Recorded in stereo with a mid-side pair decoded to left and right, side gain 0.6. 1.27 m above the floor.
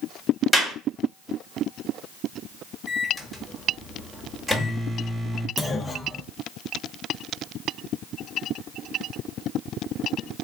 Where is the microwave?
10° left, 1.3 m.